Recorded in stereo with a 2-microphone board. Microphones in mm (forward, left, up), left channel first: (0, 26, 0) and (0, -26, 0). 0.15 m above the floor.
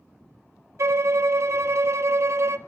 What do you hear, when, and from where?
0.8 s a violin: 60° right (ahead or behind), 0.6 m